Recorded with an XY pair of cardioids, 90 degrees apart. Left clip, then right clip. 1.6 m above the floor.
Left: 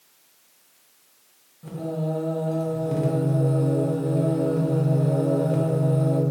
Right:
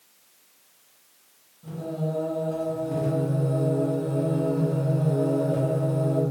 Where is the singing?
60° left, 0.9 m.